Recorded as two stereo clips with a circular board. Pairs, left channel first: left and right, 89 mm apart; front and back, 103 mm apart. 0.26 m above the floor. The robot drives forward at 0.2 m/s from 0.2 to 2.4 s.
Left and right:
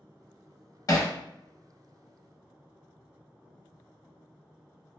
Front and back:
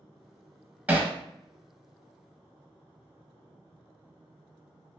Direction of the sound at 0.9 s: 110° left.